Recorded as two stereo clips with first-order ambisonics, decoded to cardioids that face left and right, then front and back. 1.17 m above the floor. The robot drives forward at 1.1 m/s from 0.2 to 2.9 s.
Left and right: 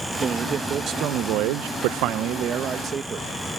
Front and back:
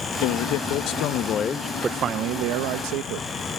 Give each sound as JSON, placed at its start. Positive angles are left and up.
{"t": 0.2, "sound": "a man speaking", "azimuth_deg": -20}